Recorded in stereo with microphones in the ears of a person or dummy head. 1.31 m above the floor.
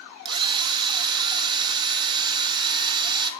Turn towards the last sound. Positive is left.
turn(degrees=-20)  # may be behind; listen again after turning